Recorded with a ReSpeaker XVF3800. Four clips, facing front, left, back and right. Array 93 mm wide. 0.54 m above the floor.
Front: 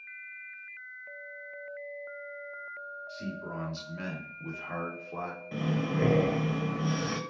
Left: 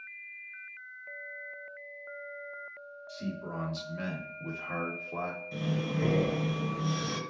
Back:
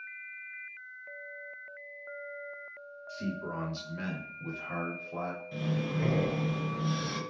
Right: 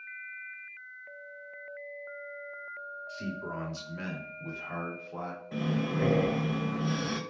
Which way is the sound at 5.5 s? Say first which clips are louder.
Right 4 dB, front 4 dB; 35° right.